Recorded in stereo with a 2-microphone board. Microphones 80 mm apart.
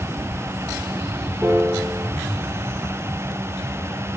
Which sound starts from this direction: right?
A piano, at 1.4 s.